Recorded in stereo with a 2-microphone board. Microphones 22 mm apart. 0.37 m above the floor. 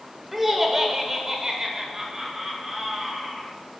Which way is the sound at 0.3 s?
10° right (ahead or behind).